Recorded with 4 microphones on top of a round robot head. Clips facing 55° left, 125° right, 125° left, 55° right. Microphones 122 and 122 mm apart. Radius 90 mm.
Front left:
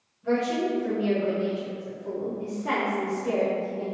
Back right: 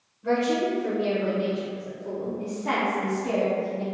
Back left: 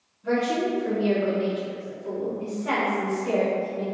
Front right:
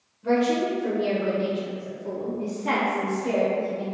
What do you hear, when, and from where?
0.2 s a woman speaking: 90° right, 1.3 m; by 3.8 s 10° right, 2.0 m